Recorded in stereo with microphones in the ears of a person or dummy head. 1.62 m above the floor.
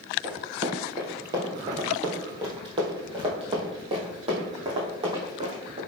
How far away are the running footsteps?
About 1.8 m.